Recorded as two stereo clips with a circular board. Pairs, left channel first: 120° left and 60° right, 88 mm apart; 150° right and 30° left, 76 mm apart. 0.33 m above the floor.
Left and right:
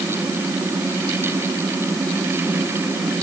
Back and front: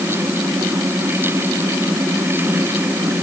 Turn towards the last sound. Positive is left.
No sound to turn to.